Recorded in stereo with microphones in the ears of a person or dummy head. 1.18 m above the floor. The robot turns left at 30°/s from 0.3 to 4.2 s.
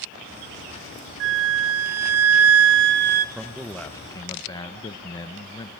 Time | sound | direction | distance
1.2 | a flute | 70° right | 0.8 m
3.4 | a man speaking | 5° right (ahead or behind) | 0.7 m